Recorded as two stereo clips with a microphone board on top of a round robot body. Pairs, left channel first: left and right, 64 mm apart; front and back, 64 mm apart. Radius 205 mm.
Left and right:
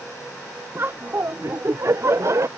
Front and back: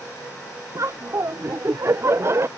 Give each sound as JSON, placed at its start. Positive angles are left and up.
{"t": 0.8, "sound": "laughter", "azimuth_deg": -145}